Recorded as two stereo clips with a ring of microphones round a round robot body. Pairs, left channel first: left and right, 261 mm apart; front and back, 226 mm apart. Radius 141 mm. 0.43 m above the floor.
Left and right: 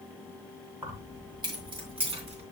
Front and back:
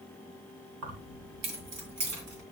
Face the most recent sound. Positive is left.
turn(degrees=-160)